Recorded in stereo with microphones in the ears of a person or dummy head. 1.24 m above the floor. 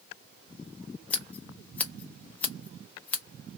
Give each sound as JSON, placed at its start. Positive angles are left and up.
{"t": 1.1, "sound": "scissors", "side_deg": 10, "distance_m": 0.7}